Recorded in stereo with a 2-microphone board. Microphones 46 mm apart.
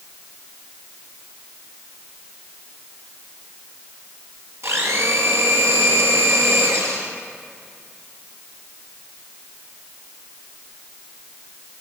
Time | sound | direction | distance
4.6 | a blender | 75° right (ahead or behind) | 1.8 m